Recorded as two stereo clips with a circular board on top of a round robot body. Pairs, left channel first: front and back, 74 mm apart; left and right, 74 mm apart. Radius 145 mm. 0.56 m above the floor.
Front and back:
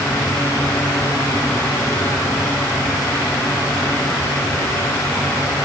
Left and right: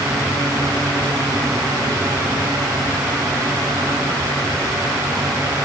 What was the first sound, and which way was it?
Only background noise.